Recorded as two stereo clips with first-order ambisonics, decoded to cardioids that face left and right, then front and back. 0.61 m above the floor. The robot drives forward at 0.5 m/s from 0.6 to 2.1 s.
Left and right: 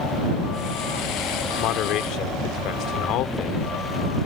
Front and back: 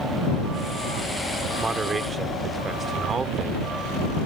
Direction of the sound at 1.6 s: 105° left.